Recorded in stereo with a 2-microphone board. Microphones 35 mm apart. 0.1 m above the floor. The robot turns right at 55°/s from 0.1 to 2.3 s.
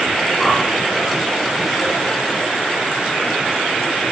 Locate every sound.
0.4 s a whoosh: centre (ahead or behind), 3 m; by 0.6 s 15° left (ahead or behind), 3 m